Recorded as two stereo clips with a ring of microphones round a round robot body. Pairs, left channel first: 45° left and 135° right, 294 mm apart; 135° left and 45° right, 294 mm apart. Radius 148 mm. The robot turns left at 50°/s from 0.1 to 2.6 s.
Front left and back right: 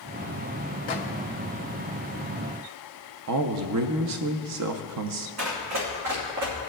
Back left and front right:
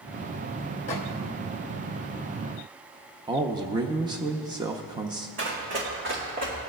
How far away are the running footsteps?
About 3 m.